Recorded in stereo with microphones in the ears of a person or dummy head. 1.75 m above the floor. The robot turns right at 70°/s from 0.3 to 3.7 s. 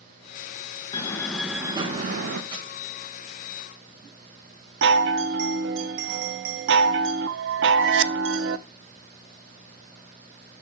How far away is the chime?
About 0.6 m.